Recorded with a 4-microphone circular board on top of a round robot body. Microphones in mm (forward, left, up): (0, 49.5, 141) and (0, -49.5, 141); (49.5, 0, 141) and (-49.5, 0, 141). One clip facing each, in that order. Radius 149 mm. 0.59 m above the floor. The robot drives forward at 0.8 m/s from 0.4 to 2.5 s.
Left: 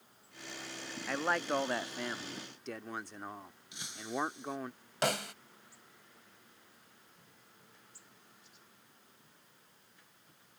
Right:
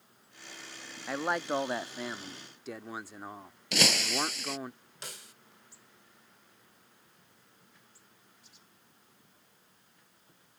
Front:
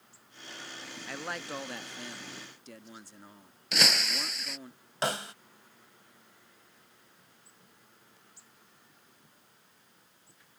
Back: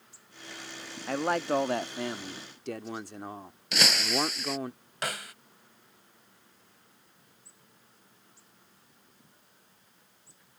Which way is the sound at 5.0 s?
65° left.